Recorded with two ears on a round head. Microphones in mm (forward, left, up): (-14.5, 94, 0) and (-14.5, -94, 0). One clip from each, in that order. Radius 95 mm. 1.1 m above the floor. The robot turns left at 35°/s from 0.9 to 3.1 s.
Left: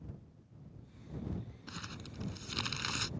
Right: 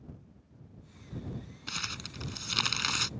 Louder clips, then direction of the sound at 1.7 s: Right 12 dB; 100° right.